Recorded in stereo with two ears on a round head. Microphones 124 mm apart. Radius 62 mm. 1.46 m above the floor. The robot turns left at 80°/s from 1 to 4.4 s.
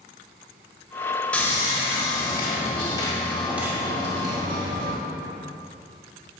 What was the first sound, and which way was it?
Sawing, 165° left.